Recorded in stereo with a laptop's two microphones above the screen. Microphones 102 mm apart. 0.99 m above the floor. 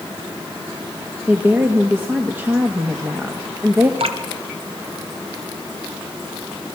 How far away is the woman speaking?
About 1.4 m.